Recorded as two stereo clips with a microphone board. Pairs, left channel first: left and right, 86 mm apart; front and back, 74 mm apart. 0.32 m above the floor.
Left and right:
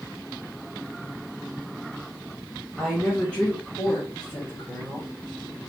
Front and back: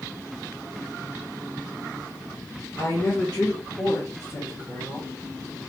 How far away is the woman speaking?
About 1.6 m.